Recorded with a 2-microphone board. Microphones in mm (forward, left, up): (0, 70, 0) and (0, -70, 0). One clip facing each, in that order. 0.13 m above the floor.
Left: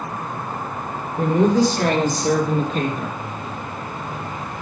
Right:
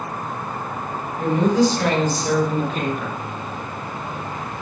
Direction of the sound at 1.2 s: 45° left (ahead or behind).